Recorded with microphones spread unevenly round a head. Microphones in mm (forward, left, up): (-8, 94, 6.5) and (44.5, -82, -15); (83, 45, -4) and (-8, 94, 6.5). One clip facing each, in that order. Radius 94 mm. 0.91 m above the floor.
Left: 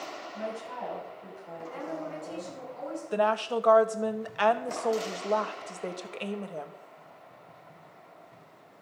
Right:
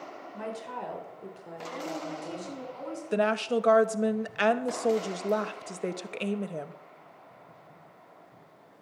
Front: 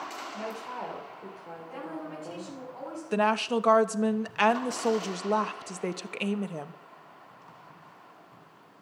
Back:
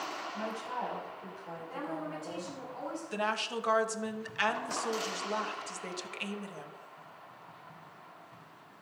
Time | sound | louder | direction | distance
0.3 | a woman speaking | even, front 1 dB | 90° right | 4.5 m
1.7 | a woman speaking | right 1 dB, even | 115° right | 7.5 m
3.1 | a woman speaking | right 1 dB, front 10 dB | 15° right | 0.7 m